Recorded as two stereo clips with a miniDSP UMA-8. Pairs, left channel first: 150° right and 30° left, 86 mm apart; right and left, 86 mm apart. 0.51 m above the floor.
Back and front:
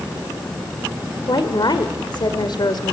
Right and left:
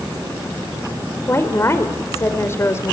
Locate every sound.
1.3 s a woman speaking: 140° right, 2 m